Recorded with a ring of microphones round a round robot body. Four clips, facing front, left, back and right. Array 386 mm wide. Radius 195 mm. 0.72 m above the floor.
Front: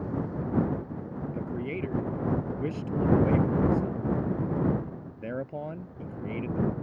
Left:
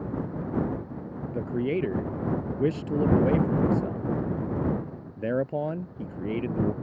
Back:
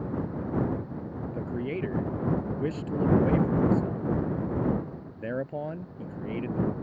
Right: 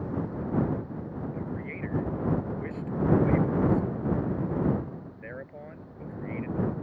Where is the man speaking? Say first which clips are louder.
Left 9 dB, back 2 dB; 95° left.